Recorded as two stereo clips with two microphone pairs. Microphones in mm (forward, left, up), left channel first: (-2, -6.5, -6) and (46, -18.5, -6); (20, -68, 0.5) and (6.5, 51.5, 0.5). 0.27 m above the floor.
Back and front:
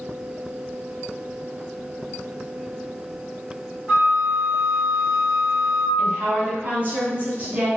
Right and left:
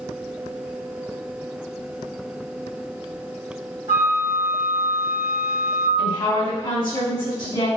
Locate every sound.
3.9 s a flute: 35° left, 1.4 m
6.0 s a woman speaking: 55° right, 1.9 m